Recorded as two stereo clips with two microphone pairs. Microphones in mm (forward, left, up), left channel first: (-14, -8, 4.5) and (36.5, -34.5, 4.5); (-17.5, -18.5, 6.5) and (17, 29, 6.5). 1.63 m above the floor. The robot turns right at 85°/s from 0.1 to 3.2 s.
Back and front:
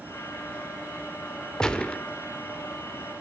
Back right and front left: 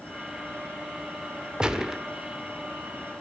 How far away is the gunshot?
About 1.3 m.